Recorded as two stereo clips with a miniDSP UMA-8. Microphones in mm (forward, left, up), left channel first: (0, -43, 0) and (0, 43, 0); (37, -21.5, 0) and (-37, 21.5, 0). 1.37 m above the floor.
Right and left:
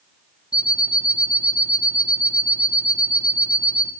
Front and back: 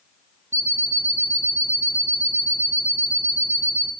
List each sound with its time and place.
0.5 s an alarm clock: 155° left, 0.6 m